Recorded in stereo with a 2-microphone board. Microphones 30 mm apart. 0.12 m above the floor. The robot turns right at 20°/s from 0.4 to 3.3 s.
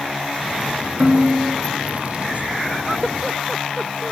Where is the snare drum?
30° right (ahead or behind), 1.9 m; by 1.6 s 25° right (ahead or behind), 1.9 m.